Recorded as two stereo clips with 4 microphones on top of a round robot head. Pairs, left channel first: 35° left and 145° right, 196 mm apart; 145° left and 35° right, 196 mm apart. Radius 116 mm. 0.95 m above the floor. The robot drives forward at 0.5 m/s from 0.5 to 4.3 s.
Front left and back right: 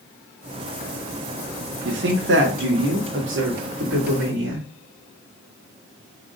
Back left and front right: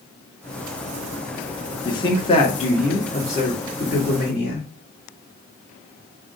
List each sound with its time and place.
1.9 s a woman speaking: 150° right, 1.4 m; by 4.7 s 165° right, 2.5 m